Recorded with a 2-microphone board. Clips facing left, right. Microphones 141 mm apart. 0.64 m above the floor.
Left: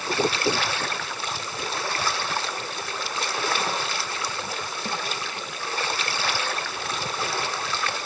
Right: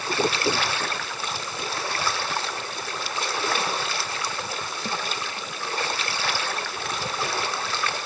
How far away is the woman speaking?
I don't hear a woman speaking.